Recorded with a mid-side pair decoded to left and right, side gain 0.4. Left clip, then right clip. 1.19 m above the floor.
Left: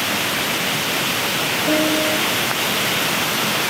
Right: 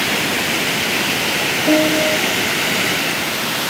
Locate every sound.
1.7 s a piano: 50° right, 3 m